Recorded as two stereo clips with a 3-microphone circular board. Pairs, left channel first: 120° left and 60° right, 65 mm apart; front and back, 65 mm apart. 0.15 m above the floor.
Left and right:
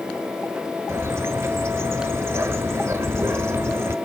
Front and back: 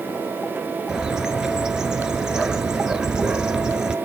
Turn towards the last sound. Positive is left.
turn(degrees=-100)